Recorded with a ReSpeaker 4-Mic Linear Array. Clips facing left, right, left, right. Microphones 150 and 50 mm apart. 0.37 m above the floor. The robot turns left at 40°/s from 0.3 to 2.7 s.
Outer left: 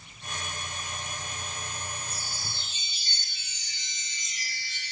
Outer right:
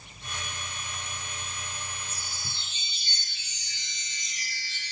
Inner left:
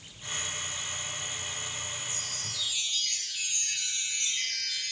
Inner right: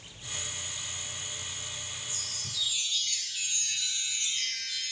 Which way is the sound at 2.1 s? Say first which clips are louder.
Outer left 2 dB, inner left 2 dB; 60° left (ahead or behind).